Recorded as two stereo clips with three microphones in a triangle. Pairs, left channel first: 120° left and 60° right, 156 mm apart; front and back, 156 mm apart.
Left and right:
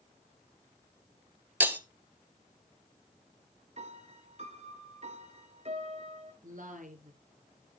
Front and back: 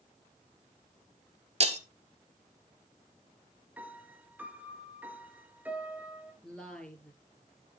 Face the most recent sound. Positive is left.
turn(degrees=-85)